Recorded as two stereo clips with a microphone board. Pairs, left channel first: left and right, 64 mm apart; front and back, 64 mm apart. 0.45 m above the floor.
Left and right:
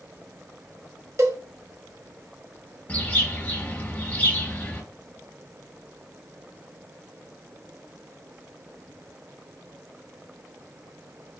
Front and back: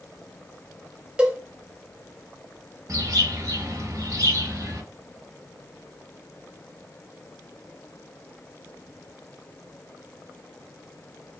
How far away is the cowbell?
About 0.7 m.